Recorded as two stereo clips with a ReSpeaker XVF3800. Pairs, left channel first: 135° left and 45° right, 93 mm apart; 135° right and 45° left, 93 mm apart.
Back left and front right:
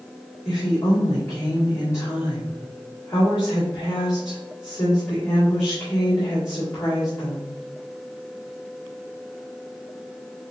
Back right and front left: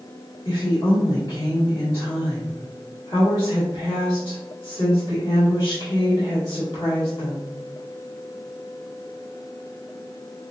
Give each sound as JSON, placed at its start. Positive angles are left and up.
{"t": 0.5, "sound": "a woman speaking", "azimuth_deg": -170, "distance_m": 2.0}